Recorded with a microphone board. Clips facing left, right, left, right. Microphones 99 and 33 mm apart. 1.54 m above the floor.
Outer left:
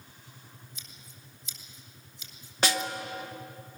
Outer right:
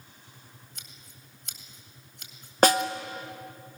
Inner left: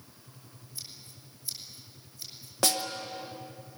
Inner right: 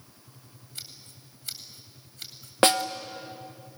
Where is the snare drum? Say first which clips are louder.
Outer right 9 dB, inner right 8 dB; 45° right (ahead or behind), 1.1 m.